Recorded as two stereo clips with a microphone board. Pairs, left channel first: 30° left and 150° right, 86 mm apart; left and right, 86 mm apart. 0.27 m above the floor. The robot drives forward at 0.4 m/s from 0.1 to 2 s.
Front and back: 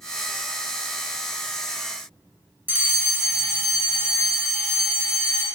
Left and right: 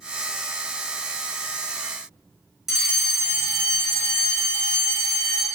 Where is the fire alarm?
165° right, 1.9 m.